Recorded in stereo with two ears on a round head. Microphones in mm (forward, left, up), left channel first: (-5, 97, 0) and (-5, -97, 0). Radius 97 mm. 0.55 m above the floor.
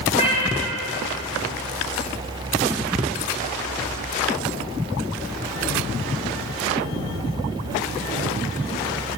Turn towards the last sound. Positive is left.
turn(degrees=30)  # may be behind; listen again after turning